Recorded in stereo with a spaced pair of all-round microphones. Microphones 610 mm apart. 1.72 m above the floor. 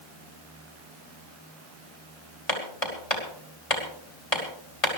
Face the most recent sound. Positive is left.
turn(degrees=60)  # may be behind; listen again after turning